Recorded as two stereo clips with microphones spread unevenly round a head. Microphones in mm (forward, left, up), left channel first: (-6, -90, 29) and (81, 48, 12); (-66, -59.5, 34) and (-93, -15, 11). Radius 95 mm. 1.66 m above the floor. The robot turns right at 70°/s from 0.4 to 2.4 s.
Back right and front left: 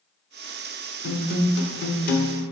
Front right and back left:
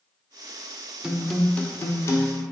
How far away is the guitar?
About 1.1 m.